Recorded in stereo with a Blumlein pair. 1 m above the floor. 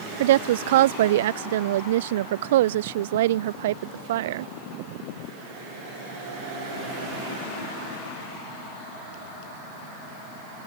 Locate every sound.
0.2 s a woman speaking: 55° right